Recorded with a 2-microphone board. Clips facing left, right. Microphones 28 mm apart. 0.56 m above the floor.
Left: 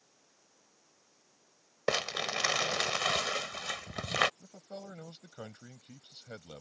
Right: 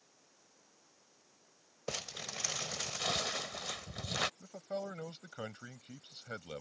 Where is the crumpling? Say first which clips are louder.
Left 10 dB; 65° left (ahead or behind).